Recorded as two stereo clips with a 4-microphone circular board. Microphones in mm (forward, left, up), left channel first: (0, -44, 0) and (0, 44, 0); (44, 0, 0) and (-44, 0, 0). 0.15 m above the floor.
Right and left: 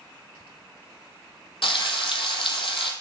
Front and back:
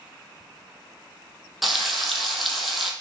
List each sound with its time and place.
1.6 s frying: 90° right, 0.7 m